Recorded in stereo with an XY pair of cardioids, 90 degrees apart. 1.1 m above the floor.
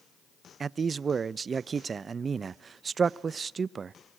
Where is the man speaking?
45° right, 0.6 m.